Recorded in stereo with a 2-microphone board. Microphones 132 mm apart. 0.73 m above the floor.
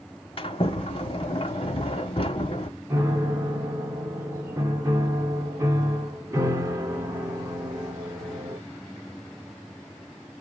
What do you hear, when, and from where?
0.4 s a sliding door: 45° left (ahead or behind), 1.0 m
2.9 s a piano: 25° right (ahead or behind), 1.5 m